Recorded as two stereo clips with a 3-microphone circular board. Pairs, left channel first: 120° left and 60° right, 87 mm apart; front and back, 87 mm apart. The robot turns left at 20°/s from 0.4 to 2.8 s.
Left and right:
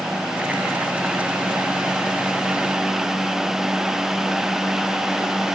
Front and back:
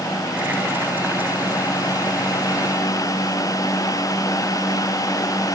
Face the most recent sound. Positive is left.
No sound to turn to.